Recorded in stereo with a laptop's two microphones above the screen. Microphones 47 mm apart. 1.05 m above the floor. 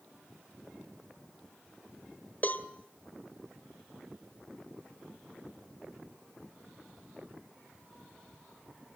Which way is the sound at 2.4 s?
35° left (ahead or behind).